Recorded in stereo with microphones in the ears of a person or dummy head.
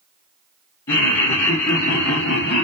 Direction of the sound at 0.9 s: 25° left (ahead or behind).